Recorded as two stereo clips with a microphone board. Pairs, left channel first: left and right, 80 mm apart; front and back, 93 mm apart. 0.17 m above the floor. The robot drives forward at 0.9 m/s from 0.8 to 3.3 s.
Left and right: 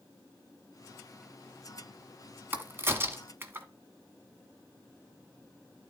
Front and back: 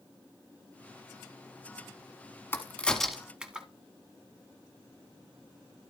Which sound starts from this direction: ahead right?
A crack, at 2.5 s.